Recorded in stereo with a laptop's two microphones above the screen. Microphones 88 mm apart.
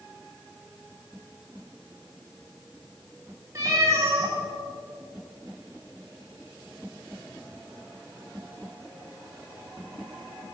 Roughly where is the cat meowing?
Right.